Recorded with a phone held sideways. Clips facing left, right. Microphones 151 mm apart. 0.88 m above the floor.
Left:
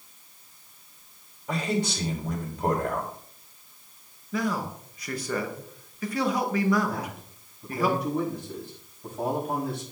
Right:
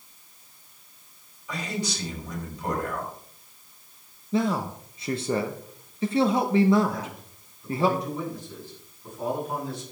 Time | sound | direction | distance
1.5 | a man speaking | 55° left (ahead or behind) | 3.5 m
4.3 | a man speaking | 25° right (ahead or behind) | 1.0 m
6.9 | a man speaking | 60° left (ahead or behind) | 6 m